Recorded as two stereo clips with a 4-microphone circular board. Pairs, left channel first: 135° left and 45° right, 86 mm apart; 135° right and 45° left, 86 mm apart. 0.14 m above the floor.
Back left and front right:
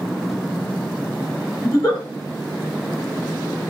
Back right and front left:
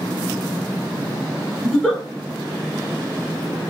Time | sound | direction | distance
1.6 | a giggle | 135° left | 1.5 m